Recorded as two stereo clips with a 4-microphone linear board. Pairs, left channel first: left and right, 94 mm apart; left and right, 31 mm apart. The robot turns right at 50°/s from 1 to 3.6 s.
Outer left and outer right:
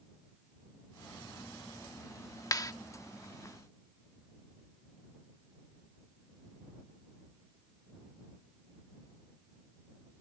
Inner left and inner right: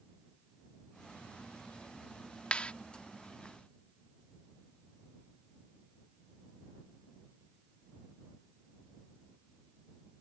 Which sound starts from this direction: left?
A clap, at 2.5 s.